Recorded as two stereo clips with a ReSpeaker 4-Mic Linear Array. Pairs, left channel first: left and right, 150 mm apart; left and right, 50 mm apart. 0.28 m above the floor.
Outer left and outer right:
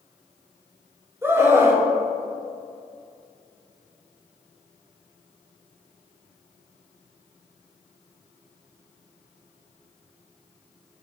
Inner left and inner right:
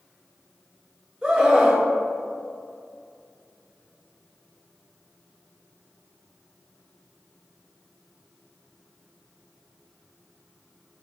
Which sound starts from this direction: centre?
A scream, at 1.2 s.